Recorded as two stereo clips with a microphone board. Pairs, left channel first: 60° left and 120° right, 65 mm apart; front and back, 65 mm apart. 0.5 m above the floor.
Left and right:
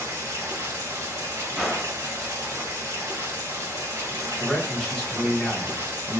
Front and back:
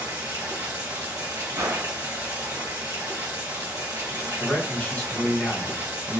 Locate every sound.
0.0 s running water: 155° right, 1.8 m
1.6 s a gunshot: 155° left, 0.9 m
4.4 s a man speaking: 15° right, 1.4 m